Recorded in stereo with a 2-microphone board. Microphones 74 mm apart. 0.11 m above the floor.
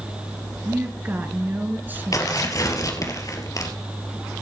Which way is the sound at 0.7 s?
25° right (ahead or behind).